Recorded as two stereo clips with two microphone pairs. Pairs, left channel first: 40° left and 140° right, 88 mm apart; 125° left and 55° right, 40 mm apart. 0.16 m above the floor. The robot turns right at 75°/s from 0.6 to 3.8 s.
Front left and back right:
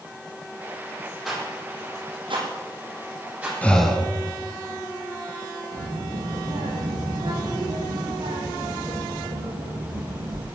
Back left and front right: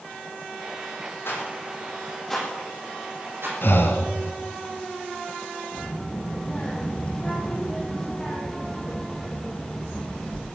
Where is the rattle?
125° left, 8 m; by 3.5 s 65° right, 8 m.